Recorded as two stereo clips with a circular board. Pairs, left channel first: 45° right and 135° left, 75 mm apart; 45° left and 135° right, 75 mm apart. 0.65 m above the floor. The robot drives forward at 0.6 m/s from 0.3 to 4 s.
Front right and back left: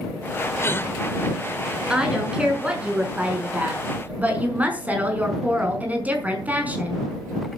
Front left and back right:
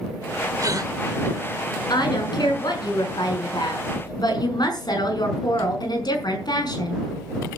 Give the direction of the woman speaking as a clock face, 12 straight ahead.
10 o'clock.